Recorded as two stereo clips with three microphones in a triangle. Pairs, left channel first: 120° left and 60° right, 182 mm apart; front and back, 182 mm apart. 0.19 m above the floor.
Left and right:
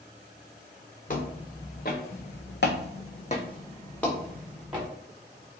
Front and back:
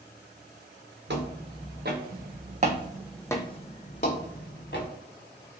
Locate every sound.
1.1 s footsteps: 165° left, 1.4 m; by 4.9 s 25° left, 1.3 m